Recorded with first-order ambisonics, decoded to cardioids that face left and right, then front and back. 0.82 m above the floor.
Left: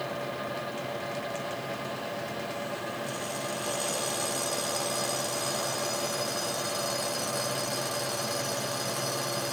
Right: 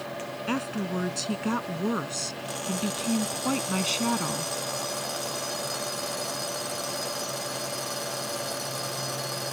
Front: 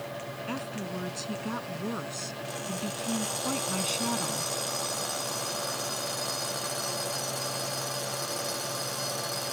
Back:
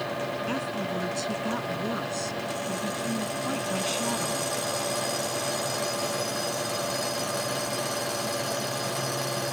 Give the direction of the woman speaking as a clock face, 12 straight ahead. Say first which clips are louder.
Right 3 dB, back 6 dB; 3 o'clock.